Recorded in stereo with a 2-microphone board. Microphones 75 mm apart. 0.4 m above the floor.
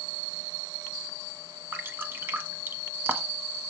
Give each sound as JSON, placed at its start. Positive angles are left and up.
{"t": 1.7, "sound": "dripping", "side_deg": -30, "distance_m": 1.1}